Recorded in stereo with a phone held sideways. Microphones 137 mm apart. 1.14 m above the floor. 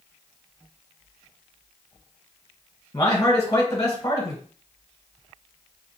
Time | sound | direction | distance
2.9 | a man speaking | 30° left (ahead or behind) | 1.3 m